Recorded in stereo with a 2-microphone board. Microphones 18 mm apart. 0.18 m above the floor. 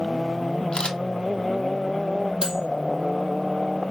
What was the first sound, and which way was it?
A camera shutter, 40° left (ahead or behind).